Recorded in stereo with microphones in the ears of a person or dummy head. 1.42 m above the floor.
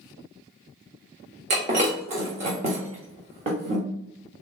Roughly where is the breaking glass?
Right.